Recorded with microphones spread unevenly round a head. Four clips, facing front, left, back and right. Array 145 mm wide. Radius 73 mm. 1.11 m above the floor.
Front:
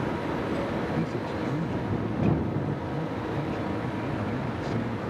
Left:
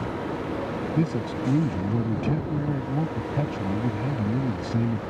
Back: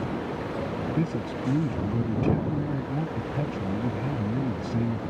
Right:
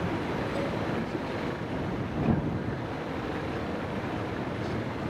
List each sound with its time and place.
0.9 s a man speaking: 120° left